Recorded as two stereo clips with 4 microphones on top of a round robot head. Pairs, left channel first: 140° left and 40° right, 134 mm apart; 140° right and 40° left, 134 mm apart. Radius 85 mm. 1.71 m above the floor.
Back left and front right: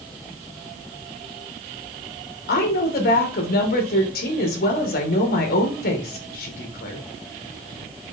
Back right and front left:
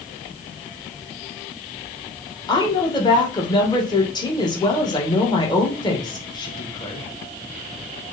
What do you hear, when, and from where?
2.5 s a woman speaking: 160° left, 2.5 m